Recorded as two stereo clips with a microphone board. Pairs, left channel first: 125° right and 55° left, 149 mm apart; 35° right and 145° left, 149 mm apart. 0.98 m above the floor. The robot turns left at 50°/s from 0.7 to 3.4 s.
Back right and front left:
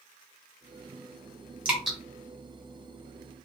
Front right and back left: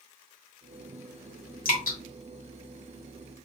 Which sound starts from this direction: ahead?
Dripping, at 1.6 s.